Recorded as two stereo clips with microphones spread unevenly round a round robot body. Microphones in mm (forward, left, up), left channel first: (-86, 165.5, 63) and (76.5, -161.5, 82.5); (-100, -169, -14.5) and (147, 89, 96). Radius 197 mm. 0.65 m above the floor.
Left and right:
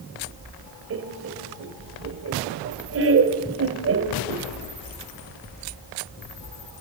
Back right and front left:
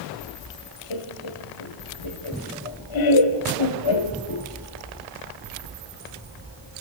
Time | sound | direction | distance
0.9 | laughter | 120° right | 3 m